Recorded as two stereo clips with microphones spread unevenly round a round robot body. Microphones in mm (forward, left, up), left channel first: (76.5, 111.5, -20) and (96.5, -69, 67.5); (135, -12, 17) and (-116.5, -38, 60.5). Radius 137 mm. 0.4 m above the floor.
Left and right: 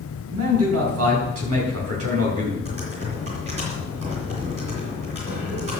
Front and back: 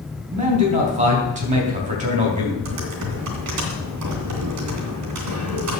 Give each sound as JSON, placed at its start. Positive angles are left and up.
{"t": 0.3, "sound": "a man speaking", "azimuth_deg": -110, "distance_m": 4.0}
{"t": 2.6, "sound": "typing on a keyboard", "azimuth_deg": -155, "distance_m": 3.0}